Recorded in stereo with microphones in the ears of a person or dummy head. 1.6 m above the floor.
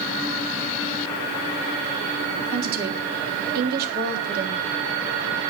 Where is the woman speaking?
60° right (ahead or behind), 3.5 m.